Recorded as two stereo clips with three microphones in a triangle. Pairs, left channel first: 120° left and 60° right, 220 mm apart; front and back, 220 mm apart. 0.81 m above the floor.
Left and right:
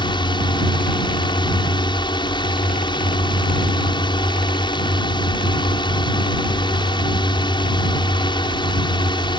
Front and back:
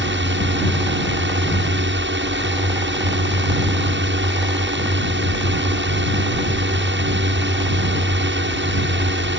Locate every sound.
0.0 s a drone: 175° right